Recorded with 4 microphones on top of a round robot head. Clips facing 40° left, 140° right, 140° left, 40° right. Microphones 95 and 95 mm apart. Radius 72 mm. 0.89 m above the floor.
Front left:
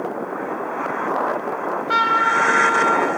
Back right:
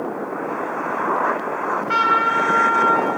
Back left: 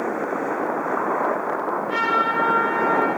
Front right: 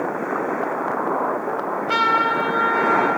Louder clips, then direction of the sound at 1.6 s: Even, front right 2 dB; 40° right.